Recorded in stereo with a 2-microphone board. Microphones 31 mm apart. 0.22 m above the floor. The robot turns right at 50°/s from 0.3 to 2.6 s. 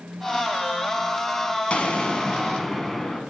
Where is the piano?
I don't hear a piano.